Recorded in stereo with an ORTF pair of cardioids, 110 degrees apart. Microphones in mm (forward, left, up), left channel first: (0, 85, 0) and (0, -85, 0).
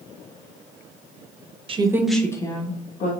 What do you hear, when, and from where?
1.7 s a woman speaking: 35° right, 0.7 m; by 3.1 s 45° left, 1.4 m